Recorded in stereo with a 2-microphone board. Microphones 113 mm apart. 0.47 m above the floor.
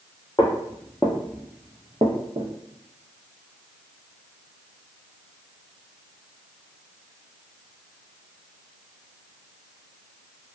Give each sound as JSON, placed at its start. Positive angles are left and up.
{"t": 0.4, "sound": "footsteps", "side_deg": 35, "distance_m": 0.8}